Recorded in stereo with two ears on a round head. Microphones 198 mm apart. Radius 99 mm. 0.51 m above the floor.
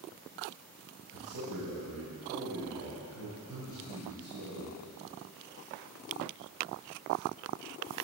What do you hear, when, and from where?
1.1 s a man speaking: 65° right (ahead or behind), 2.5 m